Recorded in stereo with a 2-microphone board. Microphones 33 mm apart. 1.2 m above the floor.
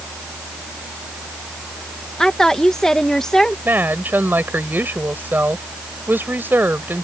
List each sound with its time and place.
2.2 s a woman speaking: 20° left (ahead or behind)
3.6 s a woman speaking: 85° right